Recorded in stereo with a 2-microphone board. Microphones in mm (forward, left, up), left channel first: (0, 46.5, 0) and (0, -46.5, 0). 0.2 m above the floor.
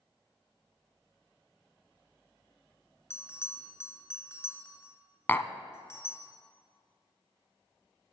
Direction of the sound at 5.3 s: 25° left (ahead or behind).